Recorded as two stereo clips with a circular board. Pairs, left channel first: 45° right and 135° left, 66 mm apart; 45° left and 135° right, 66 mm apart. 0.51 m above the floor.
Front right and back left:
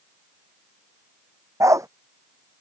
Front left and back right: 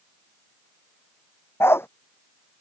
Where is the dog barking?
95° left.